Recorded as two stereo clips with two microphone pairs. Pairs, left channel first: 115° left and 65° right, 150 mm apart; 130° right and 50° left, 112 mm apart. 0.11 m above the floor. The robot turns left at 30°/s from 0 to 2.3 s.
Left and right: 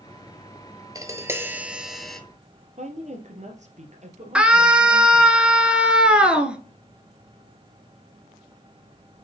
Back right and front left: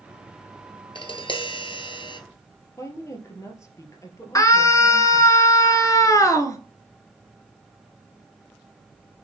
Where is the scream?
140° right, 1.2 m.